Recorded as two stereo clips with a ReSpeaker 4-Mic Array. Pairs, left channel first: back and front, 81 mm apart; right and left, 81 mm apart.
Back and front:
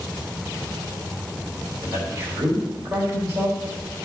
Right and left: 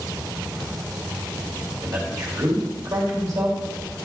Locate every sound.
1.8 s a man speaking: 50° left, 3.5 m